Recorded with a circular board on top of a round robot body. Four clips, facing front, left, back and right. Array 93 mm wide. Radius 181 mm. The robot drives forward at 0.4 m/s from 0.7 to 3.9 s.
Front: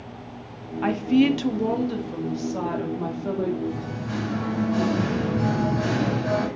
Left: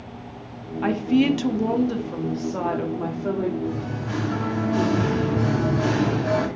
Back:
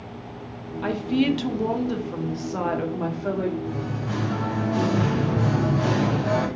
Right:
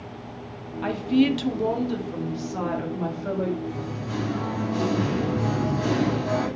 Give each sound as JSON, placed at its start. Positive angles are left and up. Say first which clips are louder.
{"t": 0.8, "sound": "a woman speaking", "louder": "left 2 dB, front 3 dB", "azimuth_deg": 30, "distance_m": 0.9}
{"t": 3.6, "sound": "singing", "louder": "left 3 dB, even", "azimuth_deg": 130, "distance_m": 0.6}